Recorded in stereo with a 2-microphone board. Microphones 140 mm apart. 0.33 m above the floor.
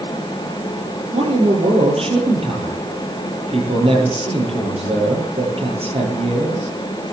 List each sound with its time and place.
1.1 s a man speaking: 45° right (ahead or behind), 8.5 m